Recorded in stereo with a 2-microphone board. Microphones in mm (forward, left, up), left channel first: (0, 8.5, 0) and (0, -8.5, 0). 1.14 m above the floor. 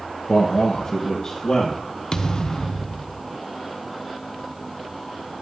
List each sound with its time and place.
0.3 s a man speaking: 45° left (ahead or behind), 1.0 m; by 1.8 s 40° left (ahead or behind), 1.8 m
2.1 s a thud: 45° left (ahead or behind), 0.8 m